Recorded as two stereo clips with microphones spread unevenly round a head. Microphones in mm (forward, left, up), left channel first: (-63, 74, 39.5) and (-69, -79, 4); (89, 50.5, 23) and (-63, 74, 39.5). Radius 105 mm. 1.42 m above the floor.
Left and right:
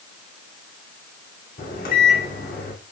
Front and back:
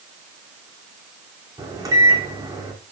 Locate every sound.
1.6 s a microwave: 105° left, 3 m